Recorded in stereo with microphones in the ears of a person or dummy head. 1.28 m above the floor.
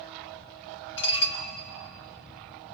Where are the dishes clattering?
70° left (ahead or behind), 1.8 m.